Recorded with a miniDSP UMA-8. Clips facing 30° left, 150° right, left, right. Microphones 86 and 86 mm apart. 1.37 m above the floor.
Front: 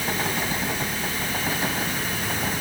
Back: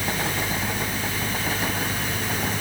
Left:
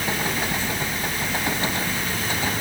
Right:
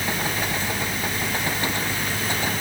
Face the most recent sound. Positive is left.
No sound to turn to.